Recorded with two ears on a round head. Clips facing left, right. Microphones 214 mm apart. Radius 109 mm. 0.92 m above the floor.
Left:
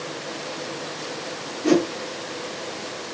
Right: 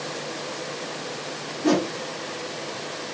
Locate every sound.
1.6 s a whoosh: 5° left (ahead or behind), 1.9 m